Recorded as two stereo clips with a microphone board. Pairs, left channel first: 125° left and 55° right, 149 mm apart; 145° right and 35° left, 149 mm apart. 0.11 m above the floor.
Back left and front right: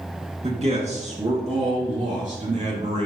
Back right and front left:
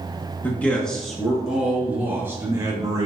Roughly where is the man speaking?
Right.